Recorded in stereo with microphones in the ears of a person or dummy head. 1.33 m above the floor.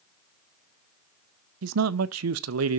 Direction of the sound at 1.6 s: 75° right (ahead or behind).